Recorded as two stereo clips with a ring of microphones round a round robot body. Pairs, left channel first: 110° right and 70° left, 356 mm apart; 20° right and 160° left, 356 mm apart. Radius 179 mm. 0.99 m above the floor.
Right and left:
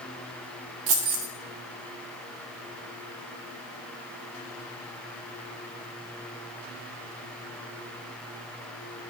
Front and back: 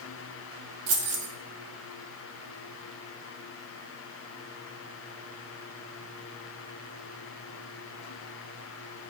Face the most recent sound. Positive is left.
turn(degrees=95)